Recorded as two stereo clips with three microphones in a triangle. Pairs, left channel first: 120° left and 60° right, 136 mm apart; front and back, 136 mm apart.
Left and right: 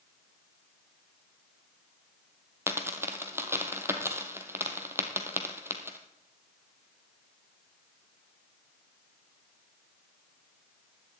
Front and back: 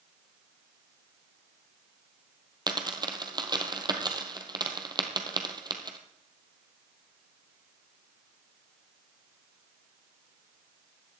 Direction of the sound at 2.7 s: 130° right.